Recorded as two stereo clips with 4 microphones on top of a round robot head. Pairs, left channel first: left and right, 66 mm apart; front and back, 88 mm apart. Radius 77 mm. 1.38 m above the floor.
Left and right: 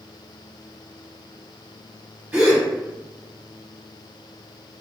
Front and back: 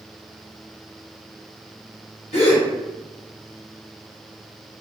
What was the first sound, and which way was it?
A gasp, 25° right.